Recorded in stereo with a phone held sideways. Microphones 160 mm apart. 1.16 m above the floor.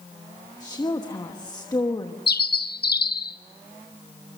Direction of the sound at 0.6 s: 25° left (ahead or behind).